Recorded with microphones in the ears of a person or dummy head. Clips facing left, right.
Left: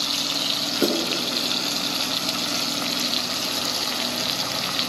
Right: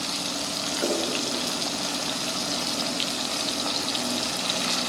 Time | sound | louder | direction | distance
0.8 | a snare drum | left 4 dB | 60° left (ahead or behind) | 5 m